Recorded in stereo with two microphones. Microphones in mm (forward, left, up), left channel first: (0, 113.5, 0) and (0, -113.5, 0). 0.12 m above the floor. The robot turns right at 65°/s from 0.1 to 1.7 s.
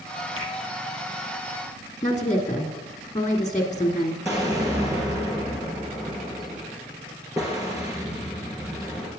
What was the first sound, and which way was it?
A finger snap, 70° right (ahead or behind).